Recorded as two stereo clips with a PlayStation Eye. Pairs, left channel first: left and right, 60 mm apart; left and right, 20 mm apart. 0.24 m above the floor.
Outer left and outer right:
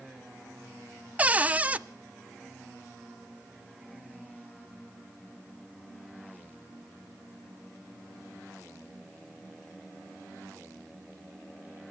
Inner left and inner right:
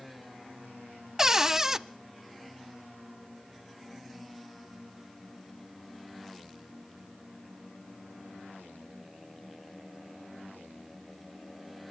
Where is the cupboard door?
25° right (ahead or behind), 0.5 m.